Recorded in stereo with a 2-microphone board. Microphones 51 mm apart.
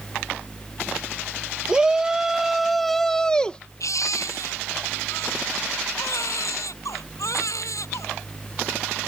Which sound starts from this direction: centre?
A shout, at 1.7 s.